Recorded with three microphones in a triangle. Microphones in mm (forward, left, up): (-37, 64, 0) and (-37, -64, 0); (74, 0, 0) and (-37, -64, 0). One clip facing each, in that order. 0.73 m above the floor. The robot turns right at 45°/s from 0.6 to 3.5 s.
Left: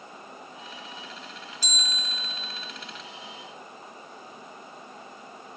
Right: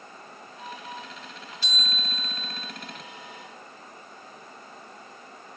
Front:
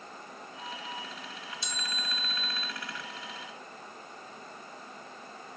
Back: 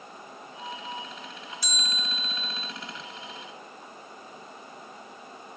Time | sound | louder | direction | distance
1.6 | a bell | right 2 dB, back 2 dB | 80° left | 0.9 m